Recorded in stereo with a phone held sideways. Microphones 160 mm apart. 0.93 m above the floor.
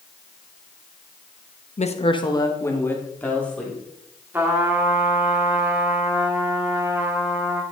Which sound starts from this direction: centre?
A trumpet, at 4.3 s.